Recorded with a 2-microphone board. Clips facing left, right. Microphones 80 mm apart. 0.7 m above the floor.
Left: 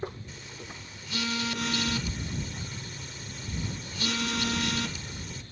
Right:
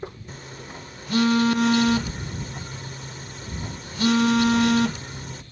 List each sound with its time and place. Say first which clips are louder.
0.3 s a phone buzzing: right 5 dB; 45° right (ahead or behind)